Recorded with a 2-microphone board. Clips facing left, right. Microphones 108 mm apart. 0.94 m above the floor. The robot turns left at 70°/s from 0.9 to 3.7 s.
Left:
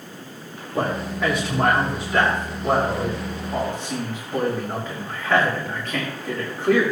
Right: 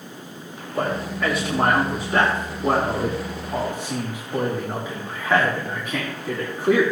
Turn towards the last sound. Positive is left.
turn(degrees=-10)  # may be behind; listen again after turning